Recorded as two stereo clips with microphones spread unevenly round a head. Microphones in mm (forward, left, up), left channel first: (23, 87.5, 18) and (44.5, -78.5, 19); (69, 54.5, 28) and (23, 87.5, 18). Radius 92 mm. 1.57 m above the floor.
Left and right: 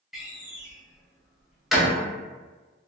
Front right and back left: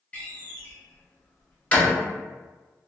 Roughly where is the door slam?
Ahead.